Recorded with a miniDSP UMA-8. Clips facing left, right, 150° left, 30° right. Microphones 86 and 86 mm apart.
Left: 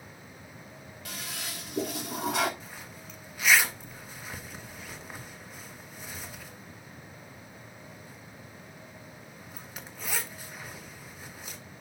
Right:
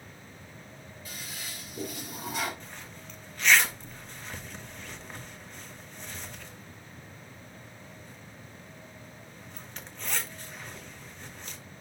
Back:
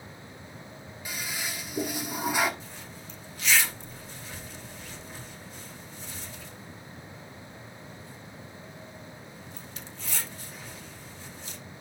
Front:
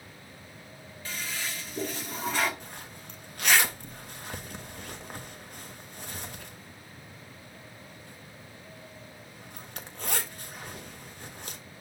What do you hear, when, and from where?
1.1 s a toilet flushing: 70° left, 1.6 m
2.6 s a zipper: 5° left, 1.3 m